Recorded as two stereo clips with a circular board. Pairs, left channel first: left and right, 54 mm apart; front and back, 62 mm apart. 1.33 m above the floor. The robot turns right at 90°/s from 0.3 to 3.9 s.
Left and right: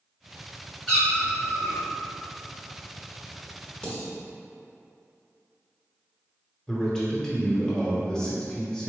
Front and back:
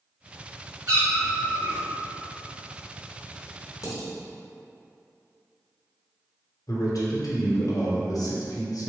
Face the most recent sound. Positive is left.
turn(degrees=10)